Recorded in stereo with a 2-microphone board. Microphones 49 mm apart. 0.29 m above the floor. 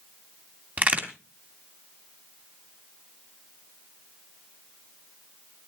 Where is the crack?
35° right (ahead or behind), 2.5 m.